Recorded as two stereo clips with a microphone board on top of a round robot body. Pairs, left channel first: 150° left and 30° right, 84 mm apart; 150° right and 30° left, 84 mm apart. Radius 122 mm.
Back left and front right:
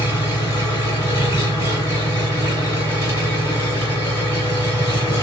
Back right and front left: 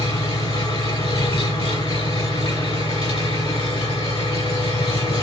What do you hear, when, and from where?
0.0 s an engine running: 150° right, 3.5 m